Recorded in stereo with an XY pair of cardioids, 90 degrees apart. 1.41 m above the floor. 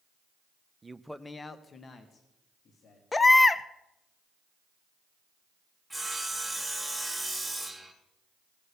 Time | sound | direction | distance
0.8 | a man speaking | 25° right | 0.7 m
3.1 | a baby crying | 30° left | 0.7 m
5.9 | sawing | straight ahead | 3 m